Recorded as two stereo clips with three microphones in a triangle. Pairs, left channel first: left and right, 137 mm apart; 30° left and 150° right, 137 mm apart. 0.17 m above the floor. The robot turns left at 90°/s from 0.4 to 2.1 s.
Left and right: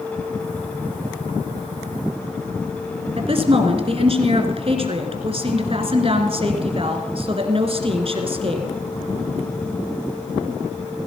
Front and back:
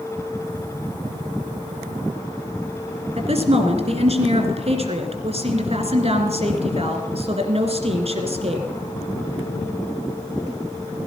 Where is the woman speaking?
125° right, 2 m.